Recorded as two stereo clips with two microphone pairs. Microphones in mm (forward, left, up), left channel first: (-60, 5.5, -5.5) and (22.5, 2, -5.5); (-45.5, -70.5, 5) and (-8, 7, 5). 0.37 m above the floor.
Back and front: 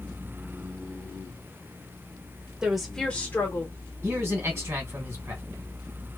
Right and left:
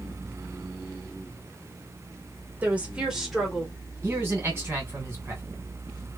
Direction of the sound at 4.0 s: 25° left.